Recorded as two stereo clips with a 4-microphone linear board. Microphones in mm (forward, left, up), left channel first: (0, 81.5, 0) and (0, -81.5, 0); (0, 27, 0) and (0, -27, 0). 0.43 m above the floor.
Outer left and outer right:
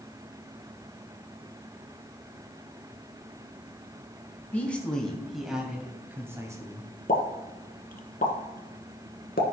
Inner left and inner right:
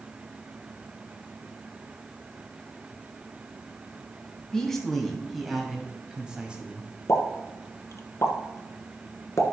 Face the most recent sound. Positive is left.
turn(degrees=60)  # may be behind; listen again after turning